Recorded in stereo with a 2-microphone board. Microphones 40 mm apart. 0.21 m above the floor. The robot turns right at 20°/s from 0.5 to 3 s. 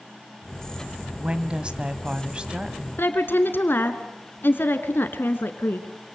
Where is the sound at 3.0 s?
60° left (ahead or behind), 2 m.